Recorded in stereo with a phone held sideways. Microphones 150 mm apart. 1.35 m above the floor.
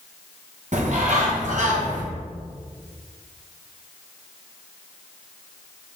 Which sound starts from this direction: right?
A bird, at 0.7 s.